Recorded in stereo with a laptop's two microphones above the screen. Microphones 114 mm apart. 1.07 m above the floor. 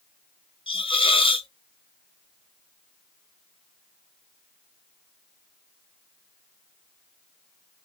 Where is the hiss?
50° left (ahead or behind), 0.5 m.